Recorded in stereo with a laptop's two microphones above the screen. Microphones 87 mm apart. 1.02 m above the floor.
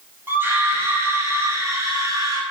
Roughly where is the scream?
Right.